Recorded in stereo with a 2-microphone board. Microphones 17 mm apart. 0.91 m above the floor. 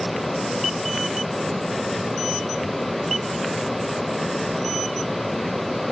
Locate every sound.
Only background noise.